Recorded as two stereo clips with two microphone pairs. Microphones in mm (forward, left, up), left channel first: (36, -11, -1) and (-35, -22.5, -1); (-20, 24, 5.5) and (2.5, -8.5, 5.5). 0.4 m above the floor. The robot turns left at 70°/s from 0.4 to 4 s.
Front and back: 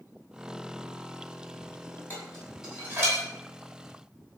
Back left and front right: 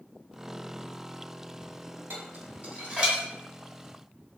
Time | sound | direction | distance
2.1 | dishes clattering | 50° right | 1.6 m